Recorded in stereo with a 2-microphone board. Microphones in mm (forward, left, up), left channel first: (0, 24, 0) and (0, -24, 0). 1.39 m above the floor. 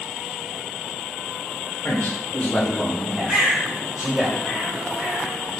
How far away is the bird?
About 1.8 m.